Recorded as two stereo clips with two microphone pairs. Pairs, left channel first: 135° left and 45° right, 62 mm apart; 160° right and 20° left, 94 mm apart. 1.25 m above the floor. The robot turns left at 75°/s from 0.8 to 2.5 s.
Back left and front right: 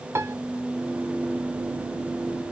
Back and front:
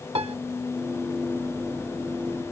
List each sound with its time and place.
0.1 s a piano: straight ahead